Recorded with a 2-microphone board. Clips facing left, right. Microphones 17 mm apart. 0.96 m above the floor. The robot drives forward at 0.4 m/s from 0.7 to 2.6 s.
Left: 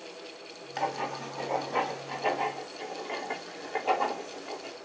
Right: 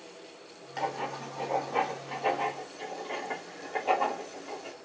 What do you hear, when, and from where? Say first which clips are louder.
0.8 s writing: left 1 dB; 25° left (ahead or behind), 2 m; by 4.8 s 20° left (ahead or behind), 2.5 m